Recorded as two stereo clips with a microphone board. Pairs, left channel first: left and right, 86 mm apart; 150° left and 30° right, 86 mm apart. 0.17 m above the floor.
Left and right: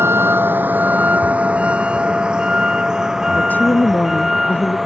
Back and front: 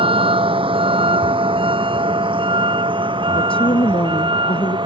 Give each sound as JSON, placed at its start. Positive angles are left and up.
{"t": 0.0, "sound": "a vehicle", "azimuth_deg": -30}
{"t": 3.3, "sound": "a woman speaking", "azimuth_deg": 160}